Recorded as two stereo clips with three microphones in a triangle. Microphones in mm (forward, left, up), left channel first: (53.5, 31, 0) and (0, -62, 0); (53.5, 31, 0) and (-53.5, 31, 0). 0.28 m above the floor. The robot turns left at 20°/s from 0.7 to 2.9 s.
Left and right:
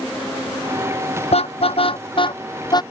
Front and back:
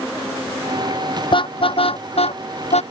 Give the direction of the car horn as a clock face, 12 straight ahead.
11 o'clock.